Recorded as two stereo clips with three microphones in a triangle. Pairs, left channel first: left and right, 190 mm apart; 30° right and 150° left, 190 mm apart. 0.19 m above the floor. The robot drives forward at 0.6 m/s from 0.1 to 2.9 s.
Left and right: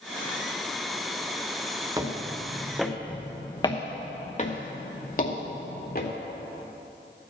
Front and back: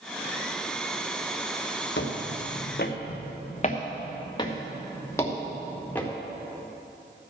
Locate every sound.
2.0 s footsteps: 20° right, 1.4 m; by 6.1 s 50° left, 2 m